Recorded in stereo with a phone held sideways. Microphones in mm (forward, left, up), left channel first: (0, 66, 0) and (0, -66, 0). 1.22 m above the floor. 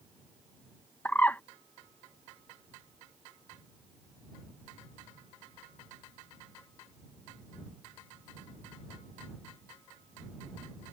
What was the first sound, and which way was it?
A bird, 15° left (ahead or behind).